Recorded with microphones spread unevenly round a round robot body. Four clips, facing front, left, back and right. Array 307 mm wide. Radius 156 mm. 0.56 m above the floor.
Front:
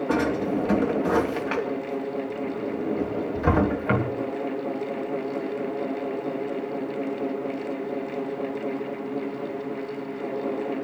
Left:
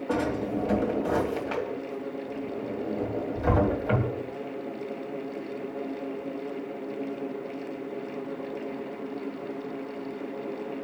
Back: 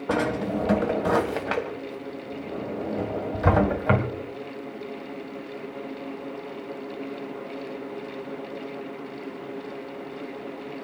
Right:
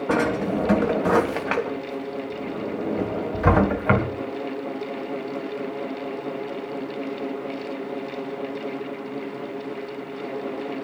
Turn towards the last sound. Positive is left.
turn(degrees=-120)